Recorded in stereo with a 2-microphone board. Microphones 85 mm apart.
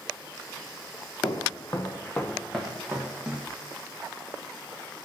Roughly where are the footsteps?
Left.